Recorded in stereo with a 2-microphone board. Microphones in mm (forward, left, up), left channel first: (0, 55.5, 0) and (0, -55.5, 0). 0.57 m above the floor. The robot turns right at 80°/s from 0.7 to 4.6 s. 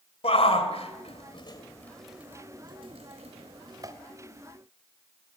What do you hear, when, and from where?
0.2 s a shout: 65° left (ahead or behind), 2.5 m; by 3.9 s 25° right (ahead or behind), 2.5 m